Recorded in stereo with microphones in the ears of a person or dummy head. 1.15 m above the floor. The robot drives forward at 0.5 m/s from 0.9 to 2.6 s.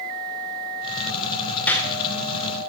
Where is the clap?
10° left (ahead or behind), 2 m.